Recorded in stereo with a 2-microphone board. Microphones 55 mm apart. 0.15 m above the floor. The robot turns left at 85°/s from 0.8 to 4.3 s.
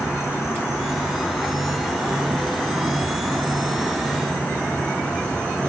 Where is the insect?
90° left, 1.7 m; by 5.7 s 155° left, 1.7 m.